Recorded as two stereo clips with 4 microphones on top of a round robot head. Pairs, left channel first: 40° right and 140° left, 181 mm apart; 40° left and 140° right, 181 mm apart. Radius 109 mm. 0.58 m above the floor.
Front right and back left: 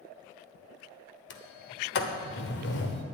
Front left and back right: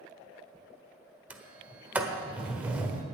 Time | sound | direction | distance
1.3 | a sliding door | 60° right | 1.2 m